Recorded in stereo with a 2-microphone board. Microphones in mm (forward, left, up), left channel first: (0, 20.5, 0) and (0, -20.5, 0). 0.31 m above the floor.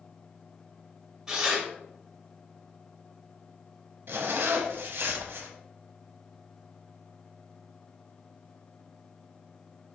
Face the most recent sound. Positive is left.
turn(degrees=-65)  # may be behind; listen again after turning